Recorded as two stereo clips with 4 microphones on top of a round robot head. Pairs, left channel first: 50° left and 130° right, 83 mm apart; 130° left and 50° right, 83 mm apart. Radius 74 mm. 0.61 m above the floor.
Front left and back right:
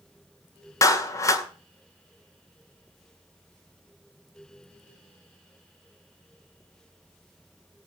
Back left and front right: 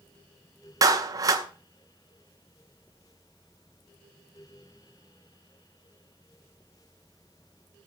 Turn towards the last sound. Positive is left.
turn(degrees=-5)